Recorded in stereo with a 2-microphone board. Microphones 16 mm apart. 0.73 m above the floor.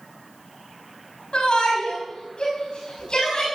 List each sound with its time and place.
1.3 s a shout: 70° left (ahead or behind), 5.5 m; by 3.5 s 55° left (ahead or behind), 6 m